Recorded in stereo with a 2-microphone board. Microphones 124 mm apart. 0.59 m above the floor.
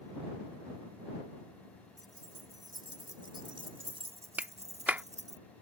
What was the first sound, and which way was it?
Keys jangling, 30° right (ahead or behind).